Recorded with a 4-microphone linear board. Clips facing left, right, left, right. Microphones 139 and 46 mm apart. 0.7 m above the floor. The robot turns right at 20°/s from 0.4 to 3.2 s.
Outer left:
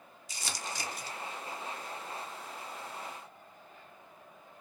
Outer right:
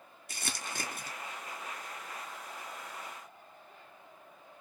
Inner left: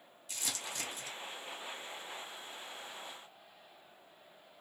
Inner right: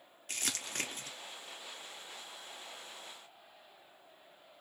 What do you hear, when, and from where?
0.3 s crumpling: 60° right (ahead or behind), 0.5 m; by 1.1 s 50° right (ahead or behind), 0.5 m